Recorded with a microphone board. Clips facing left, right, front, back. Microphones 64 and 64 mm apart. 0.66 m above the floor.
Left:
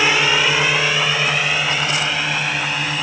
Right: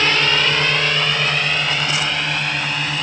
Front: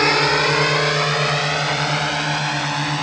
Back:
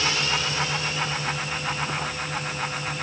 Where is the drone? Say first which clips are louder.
Left 1 dB, front 10 dB; 10° left; by 3.0 s 5° left.